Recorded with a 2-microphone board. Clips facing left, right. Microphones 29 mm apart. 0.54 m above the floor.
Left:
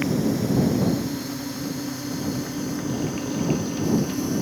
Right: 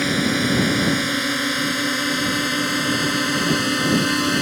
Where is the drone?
65° right (ahead or behind); by 4.4 s 70° right (ahead or behind).